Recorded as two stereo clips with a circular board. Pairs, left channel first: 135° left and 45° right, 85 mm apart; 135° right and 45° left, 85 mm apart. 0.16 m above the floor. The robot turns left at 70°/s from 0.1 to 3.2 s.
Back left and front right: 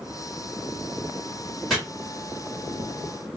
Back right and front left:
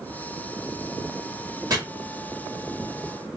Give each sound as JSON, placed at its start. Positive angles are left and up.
{"t": 1.7, "sound": "chopping", "azimuth_deg": 45, "distance_m": 2.0}